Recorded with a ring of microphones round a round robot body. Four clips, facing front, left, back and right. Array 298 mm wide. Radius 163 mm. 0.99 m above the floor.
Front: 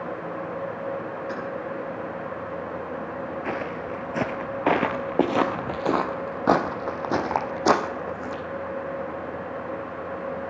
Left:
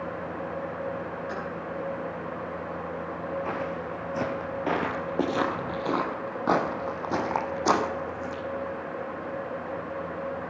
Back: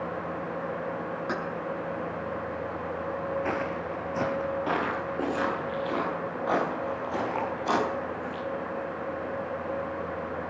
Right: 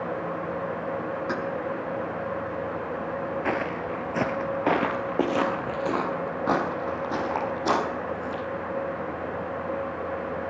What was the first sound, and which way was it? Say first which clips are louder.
Keys jangling: right 6 dB, back 2 dB; 130° right.